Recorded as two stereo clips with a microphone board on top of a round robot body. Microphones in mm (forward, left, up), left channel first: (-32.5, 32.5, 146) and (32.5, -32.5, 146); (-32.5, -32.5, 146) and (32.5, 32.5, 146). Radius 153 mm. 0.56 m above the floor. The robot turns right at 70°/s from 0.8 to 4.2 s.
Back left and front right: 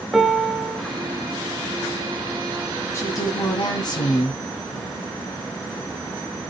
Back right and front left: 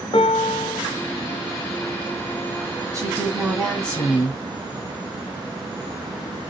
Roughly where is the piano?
Behind right.